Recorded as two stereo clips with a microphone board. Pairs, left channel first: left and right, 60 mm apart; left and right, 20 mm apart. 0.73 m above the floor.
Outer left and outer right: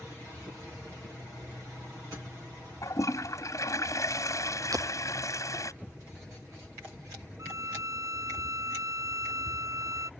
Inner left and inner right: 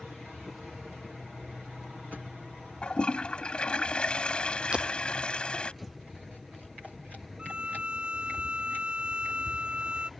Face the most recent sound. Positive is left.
turn(degrees=-65)  # may be behind; listen again after turning